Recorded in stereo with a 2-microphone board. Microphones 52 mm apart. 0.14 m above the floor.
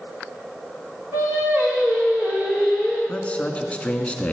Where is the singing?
50° right (ahead or behind), 5.5 m.